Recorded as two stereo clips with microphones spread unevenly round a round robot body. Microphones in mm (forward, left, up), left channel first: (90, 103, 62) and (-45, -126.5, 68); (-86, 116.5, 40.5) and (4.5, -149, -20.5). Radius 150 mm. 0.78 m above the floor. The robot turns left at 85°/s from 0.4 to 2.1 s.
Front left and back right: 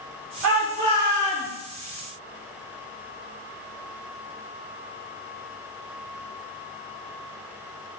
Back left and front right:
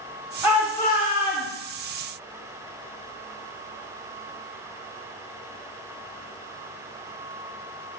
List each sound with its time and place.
0.4 s a shout: 150° right, 3 m; by 1.5 s 120° left, 3 m